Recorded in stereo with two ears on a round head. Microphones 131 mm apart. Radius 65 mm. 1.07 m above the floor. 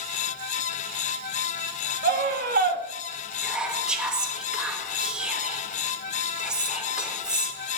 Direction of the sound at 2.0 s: 65° right (ahead or behind).